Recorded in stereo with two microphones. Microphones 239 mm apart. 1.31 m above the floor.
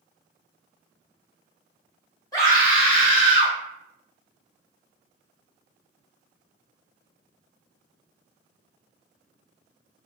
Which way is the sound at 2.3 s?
15° left (ahead or behind).